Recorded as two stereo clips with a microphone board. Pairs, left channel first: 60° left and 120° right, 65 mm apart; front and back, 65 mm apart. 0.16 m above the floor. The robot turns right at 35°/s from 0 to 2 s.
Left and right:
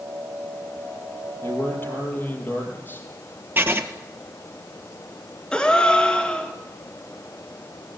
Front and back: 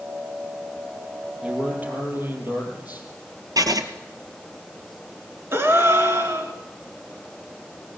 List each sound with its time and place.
1.4 s a man speaking: 100° left, 5 m; by 3.1 s 120° left, 5 m
3.6 s writing: 175° right, 1.5 m
5.5 s a gasp: 135° left, 2.5 m